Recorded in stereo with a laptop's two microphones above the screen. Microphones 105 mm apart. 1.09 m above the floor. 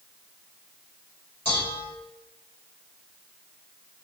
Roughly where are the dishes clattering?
Left.